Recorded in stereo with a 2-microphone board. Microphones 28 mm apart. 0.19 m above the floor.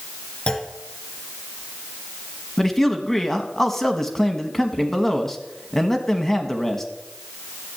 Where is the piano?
No piano in this recording.